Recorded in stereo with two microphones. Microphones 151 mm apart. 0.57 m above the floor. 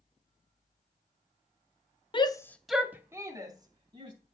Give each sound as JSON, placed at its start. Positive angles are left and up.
{"t": 2.1, "sound": "a shout", "side_deg": 35, "distance_m": 0.8}